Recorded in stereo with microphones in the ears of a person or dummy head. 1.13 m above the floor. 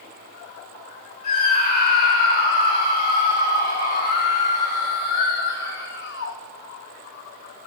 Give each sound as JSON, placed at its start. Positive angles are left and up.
{"t": 1.2, "sound": "a scream", "side_deg": 50, "distance_m": 3.5}